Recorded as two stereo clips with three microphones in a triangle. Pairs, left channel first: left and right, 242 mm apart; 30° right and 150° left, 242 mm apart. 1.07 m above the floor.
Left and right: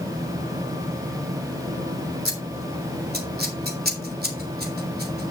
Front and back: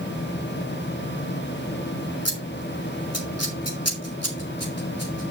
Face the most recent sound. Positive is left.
turn(degrees=-40)